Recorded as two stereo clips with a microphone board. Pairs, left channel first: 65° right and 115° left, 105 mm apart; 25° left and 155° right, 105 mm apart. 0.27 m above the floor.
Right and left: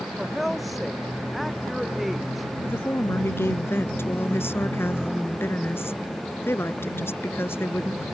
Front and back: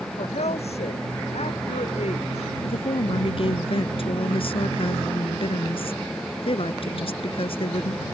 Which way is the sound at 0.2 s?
25° left.